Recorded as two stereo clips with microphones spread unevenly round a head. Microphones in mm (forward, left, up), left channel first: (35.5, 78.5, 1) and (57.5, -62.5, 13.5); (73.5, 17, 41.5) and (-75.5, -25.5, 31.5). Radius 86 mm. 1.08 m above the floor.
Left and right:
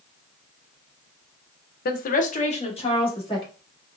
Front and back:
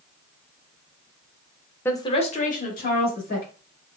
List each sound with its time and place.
1.9 s a woman speaking: 95° left, 0.6 m; by 3.5 s 45° left, 1.9 m